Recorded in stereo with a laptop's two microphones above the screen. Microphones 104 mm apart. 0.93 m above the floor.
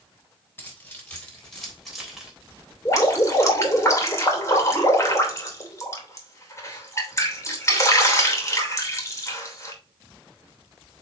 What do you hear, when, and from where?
0.6 s keys jangling: 20° left (ahead or behind), 3.5 m; by 2.3 s 5° right (ahead or behind), 3 m
2.9 s dripping: 30° left (ahead or behind), 2.5 m